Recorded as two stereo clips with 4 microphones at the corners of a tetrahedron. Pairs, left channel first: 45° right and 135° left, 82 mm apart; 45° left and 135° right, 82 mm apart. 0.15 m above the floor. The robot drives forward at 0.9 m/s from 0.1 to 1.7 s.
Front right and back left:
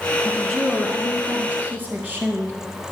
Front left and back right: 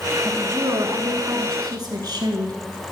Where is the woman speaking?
115° right, 1.1 m; by 2.5 s 165° right, 1.9 m.